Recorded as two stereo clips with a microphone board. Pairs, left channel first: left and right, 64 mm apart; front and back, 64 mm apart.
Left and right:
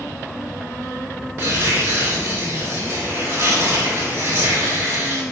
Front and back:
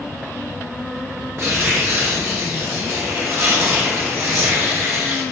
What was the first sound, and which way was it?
Tearing paper, 140° right.